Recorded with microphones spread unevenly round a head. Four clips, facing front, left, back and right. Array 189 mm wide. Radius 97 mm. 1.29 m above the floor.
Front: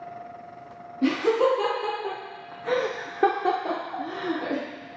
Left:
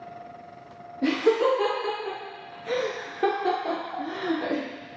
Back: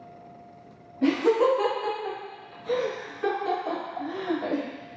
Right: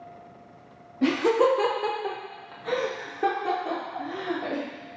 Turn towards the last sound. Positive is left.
turn(degrees=40)